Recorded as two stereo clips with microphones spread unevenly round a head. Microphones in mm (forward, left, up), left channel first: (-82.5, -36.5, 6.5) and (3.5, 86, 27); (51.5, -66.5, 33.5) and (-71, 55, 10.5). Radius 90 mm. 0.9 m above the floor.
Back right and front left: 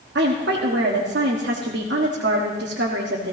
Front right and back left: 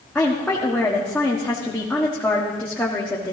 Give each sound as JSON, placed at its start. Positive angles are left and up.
{"t": 0.1, "sound": "a woman speaking", "azimuth_deg": 40, "distance_m": 1.4}